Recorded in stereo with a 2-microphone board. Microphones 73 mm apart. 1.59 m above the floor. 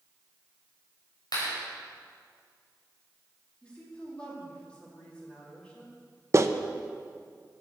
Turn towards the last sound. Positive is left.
turn(degrees=-40)  # may be behind; listen again after turning